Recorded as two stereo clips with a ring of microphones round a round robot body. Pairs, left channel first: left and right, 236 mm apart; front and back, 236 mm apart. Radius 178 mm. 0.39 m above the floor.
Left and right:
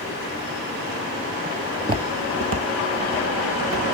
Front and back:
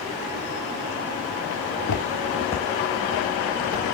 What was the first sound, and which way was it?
Footsteps, 10° right.